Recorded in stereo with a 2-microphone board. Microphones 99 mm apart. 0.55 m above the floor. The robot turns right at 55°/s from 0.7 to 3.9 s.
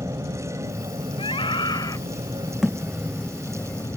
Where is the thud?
5° right (ahead or behind); by 3.9 s 65° left (ahead or behind).